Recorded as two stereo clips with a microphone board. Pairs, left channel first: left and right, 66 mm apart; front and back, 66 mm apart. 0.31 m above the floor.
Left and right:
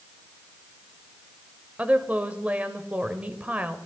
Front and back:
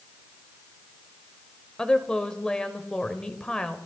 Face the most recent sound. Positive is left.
turn(degrees=-60)